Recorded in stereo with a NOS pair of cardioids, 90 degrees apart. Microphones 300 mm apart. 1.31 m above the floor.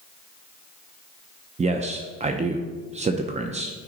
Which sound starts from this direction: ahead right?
A man speaking, at 1.6 s.